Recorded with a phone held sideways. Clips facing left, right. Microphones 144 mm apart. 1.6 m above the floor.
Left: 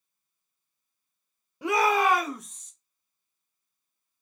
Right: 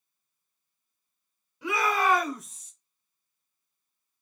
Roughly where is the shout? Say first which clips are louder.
Left 3 dB; left.